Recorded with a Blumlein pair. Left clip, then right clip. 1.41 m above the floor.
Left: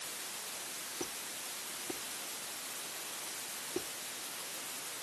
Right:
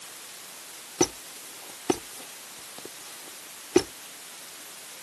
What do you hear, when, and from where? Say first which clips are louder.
1.0 s a squeak: right 19 dB; 50° right